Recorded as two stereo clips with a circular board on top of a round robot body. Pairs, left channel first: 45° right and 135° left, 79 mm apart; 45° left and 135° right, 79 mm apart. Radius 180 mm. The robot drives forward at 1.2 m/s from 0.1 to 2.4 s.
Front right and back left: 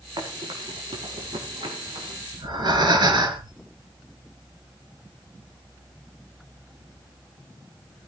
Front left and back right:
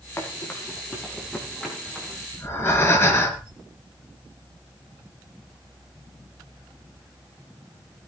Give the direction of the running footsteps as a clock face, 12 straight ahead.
9 o'clock.